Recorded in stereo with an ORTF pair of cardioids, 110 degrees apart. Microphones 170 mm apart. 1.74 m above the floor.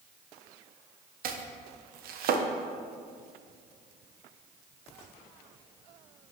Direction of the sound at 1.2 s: 60° right.